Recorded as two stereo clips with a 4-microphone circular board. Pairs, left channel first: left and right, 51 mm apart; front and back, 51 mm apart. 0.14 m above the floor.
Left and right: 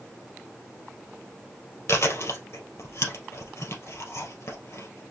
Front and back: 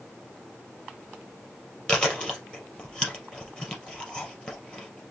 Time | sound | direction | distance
1.9 | chewing | 70° left | 3 m